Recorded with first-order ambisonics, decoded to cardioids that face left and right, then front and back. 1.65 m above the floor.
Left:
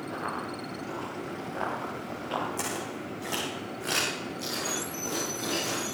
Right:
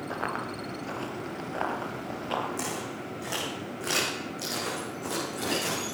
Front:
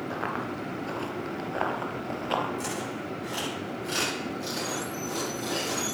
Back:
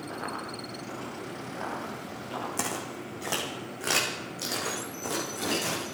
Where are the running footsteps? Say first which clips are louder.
Right 2 dB, front 3 dB; 65° right, 1.9 m; by 2.5 s 15° right, 2.5 m.